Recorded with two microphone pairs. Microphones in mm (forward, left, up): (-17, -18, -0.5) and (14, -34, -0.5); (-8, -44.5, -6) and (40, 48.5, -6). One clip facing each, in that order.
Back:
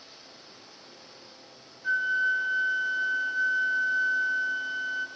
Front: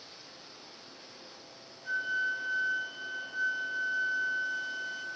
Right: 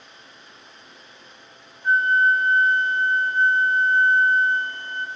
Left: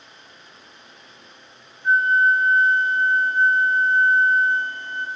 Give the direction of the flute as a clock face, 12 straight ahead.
4 o'clock.